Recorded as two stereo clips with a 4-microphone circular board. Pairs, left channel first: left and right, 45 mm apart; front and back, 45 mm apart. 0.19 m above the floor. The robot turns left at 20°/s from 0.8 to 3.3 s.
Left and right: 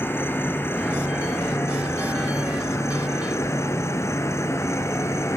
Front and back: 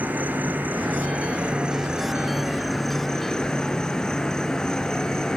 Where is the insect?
125° left, 0.9 m; by 5.4 s 75° left, 0.9 m.